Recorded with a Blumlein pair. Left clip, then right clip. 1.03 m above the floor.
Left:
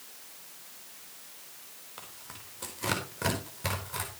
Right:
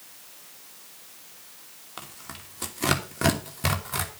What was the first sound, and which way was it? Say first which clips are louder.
Tearing paper: right 6 dB; 40° right.